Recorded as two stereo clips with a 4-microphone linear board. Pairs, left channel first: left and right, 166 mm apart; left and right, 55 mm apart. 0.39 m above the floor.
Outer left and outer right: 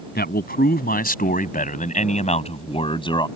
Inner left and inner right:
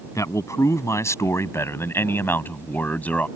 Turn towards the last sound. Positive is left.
turn(degrees=25)  # may be behind; listen again after turning